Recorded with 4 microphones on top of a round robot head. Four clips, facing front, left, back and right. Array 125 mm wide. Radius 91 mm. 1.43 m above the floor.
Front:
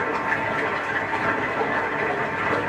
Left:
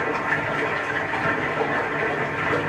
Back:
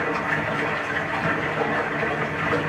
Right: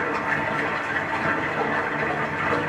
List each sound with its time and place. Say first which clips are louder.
0.0 s running water: left 1 dB, front 1 dB; 30° right, 1.3 m